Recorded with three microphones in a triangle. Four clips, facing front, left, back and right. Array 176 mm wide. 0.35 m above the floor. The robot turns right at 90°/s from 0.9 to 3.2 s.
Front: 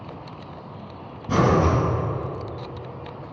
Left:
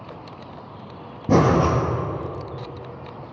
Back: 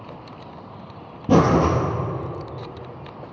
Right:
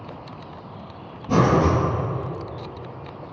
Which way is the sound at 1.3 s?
135° left.